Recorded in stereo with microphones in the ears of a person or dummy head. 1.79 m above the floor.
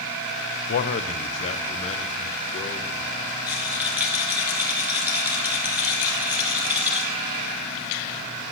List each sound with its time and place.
0.7 s a man speaking: 50° left (ahead or behind), 1.1 m; by 3.3 s 30° left (ahead or behind), 2.5 m
3.5 s a rattle: 5° right (ahead or behind), 0.8 m